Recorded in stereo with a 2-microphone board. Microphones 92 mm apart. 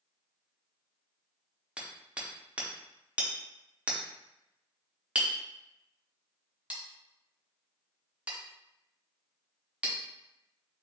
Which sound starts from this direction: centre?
Hammering, at 1.8 s.